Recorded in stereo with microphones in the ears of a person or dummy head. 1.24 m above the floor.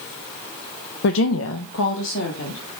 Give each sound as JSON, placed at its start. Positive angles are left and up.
{"t": 1.0, "sound": "a woman speaking", "side_deg": 60, "distance_m": 0.5}